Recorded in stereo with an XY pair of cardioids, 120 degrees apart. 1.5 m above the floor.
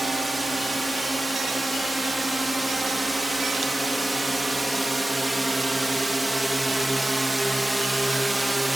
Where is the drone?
10° right.